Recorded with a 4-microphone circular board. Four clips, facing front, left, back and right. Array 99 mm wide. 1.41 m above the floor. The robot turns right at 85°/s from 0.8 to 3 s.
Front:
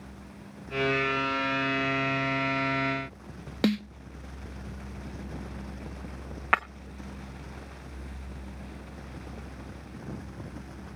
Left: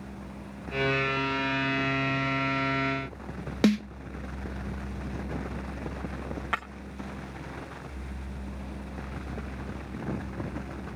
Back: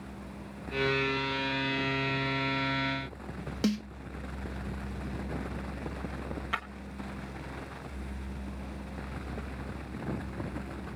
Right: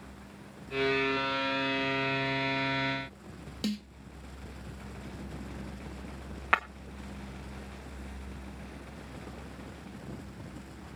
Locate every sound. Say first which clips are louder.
3.6 s a snare drum: left 11 dB, front 4 dB; 65° left, 0.6 m
6.5 s breaking glass: right 5 dB, front 11 dB; 15° right, 1.0 m